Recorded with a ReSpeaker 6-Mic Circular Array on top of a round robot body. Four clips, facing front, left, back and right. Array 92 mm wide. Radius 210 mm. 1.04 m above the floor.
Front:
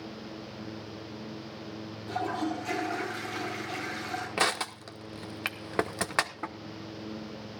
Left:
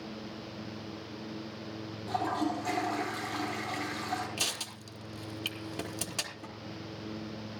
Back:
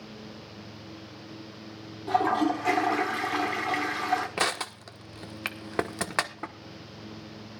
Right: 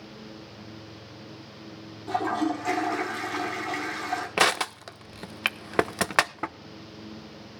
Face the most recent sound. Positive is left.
turn(degrees=-90)